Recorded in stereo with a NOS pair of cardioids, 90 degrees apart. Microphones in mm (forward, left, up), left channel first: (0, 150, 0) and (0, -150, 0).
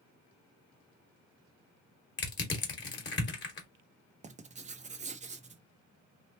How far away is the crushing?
About 1.3 m.